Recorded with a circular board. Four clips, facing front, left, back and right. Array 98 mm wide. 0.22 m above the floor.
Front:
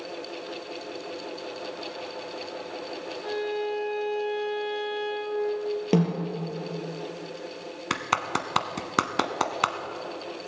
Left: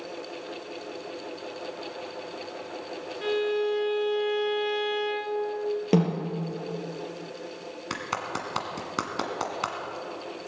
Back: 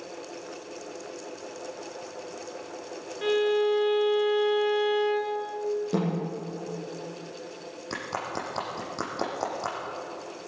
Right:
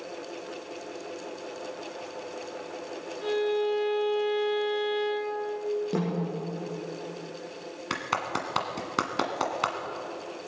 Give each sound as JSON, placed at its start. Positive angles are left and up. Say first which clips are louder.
{"t": 3.2, "sound": "a violin", "louder": "even, back 7 dB", "azimuth_deg": 150, "distance_m": 3.0}
{"t": 5.9, "sound": "a snare drum", "louder": "left 5 dB, front 4 dB", "azimuth_deg": 45, "distance_m": 4.5}
{"t": 7.9, "sound": "a clap", "louder": "right 2 dB, front 6 dB", "azimuth_deg": -10, "distance_m": 1.5}